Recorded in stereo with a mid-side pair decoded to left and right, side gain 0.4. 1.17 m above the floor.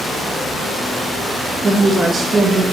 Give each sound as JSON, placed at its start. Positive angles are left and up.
{"t": 1.6, "sound": "a woman speaking", "azimuth_deg": -55, "distance_m": 0.7}